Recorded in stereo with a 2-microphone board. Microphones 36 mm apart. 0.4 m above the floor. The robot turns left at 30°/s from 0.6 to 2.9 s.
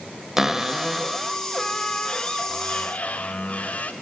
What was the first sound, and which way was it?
A cupboard door, 170° right.